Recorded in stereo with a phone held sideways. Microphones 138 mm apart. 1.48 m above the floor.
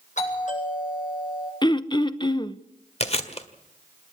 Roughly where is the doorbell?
Left.